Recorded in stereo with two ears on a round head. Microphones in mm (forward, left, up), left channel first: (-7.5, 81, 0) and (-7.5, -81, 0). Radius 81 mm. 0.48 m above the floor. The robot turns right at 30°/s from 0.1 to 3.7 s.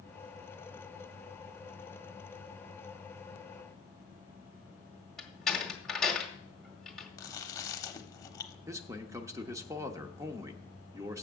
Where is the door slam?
5° left (ahead or behind), 1.6 m.